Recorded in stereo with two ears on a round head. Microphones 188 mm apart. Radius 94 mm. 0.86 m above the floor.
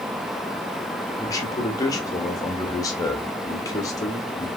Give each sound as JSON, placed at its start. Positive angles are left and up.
{"t": 1.2, "sound": "a man speaking", "side_deg": 15, "distance_m": 0.9}